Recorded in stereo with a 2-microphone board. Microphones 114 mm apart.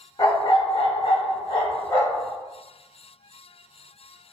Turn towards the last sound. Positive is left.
turn(degrees=30)  # may be behind; listen again after turning